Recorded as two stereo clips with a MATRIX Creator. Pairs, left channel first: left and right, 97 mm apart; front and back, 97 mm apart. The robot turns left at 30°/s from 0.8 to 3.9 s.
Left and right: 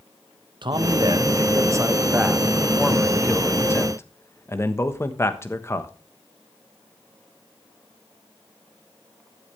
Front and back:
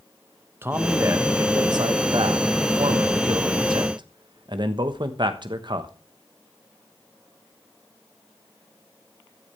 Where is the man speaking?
120° right, 1.2 m; by 5.9 s 150° left, 1.2 m.